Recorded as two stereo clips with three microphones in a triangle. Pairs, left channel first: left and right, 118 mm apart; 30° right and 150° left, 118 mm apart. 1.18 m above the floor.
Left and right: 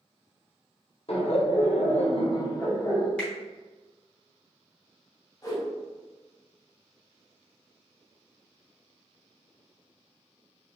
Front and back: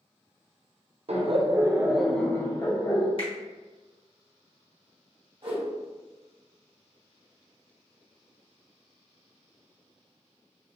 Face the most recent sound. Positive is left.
turn(degrees=135)